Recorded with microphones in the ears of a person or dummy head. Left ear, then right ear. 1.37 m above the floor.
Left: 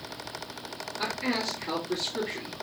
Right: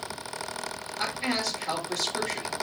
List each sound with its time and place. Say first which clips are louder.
1.0 s a man speaking: right 1 dB; 10° right (ahead or behind), 2.5 m